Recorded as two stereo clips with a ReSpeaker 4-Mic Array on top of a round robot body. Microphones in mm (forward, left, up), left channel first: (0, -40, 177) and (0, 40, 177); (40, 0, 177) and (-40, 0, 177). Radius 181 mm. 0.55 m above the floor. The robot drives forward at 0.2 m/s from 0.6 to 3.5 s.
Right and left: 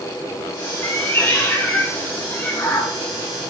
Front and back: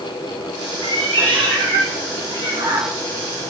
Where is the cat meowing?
150° right, 1.9 m; by 2.9 s 155° right, 2.5 m.